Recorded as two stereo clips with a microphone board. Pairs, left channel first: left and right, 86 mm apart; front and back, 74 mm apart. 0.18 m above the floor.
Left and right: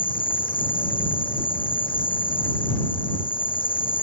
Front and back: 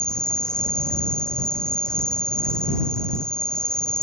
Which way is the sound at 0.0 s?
80° left.